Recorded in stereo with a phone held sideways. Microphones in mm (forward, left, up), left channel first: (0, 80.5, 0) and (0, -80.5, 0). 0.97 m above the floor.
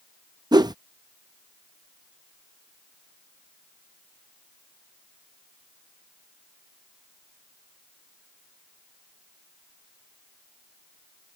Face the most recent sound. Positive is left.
turn(degrees=-25)  # may be behind; listen again after turning